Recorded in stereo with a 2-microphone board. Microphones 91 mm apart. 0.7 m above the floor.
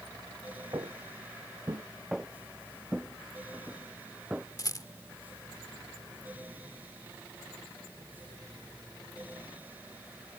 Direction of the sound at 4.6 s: 45° left (ahead or behind).